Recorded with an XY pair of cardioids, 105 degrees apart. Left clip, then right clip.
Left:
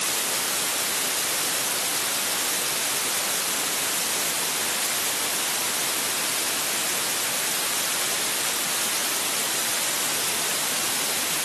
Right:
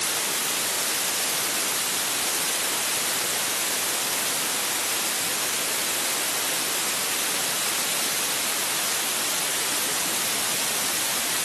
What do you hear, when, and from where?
Only background noise.